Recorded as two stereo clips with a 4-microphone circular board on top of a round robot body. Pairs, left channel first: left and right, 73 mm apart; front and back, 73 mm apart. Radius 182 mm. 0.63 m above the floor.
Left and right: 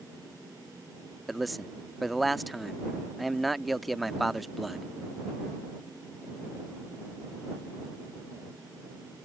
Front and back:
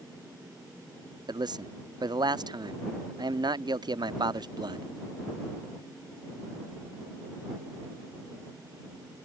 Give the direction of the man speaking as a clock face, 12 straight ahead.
6 o'clock.